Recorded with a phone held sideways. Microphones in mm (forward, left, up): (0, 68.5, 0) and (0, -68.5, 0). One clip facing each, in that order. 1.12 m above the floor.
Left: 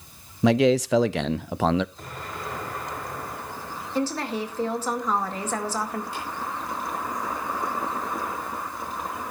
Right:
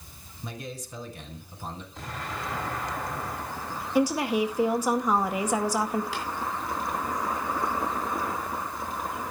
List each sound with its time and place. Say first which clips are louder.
0.4 s a man speaking: left 21 dB; 75° left (ahead or behind), 0.5 m
1.9 s an explosion: right 1 dB; 90° right, 9.5 m
4.0 s a woman speaking: right 3 dB; 10° right (ahead or behind), 1.8 m
6.1 s tapping: right 1 dB; 80° right, 5 m